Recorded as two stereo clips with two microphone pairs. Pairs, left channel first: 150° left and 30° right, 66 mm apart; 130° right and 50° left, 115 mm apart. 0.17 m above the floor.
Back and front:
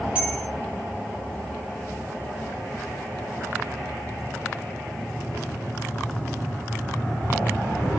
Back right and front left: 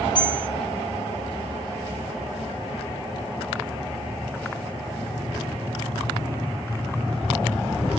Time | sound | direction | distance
0.1 | a bell | 100° right | 1.1 m